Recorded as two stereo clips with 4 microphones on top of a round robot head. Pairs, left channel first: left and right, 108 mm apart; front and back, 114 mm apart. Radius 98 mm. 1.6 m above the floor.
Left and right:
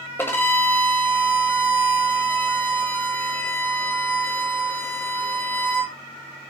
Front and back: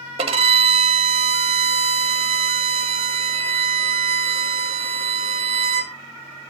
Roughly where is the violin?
Behind.